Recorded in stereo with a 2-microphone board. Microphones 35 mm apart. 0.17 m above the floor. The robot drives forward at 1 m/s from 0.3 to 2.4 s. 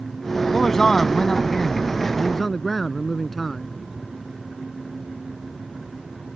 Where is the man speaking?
10° left (ahead or behind); by 3.7 s 5° left (ahead or behind).